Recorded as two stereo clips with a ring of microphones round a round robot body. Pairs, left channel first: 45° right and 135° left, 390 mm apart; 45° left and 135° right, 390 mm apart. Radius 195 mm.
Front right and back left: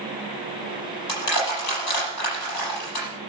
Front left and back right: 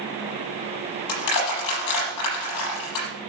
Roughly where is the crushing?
Ahead.